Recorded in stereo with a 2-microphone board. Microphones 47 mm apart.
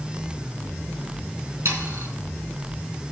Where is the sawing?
65° right (ahead or behind), 3.5 m.